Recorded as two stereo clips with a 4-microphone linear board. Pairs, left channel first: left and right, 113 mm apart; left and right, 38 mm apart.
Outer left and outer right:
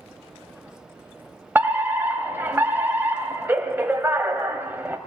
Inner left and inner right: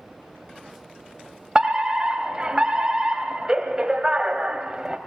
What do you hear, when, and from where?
1.6 s a fire alarm: 20° right (ahead or behind), 2 m